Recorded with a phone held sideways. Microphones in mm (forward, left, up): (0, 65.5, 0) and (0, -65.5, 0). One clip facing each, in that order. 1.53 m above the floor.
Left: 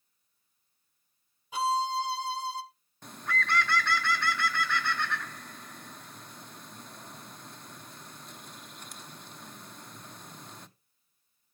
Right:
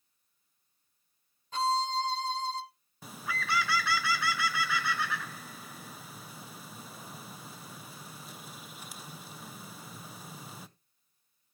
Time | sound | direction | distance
1.5 | a violin | 10° left (ahead or behind) | 0.9 m
3.0 | a bird | 5° right (ahead or behind) | 0.7 m